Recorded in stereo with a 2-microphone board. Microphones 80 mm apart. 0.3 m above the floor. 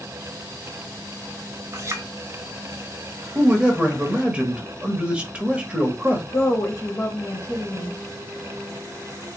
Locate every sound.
1.7 s a clink: 35° right (ahead or behind), 1.0 m
3.4 s a man speaking: 15° right (ahead or behind), 1.0 m
6.3 s a woman speaking: 35° left (ahead or behind), 1.2 m